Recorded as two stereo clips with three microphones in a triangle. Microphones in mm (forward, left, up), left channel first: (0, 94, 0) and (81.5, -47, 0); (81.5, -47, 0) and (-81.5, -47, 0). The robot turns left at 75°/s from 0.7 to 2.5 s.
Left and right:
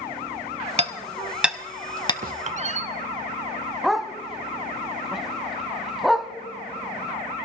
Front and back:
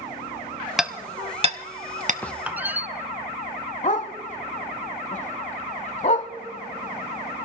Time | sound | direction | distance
0.8 | hammering | 90° right | 0.7 m
2.2 | a squeak | 80° right | 0.5 m
3.8 | a dog barking | 30° left | 0.8 m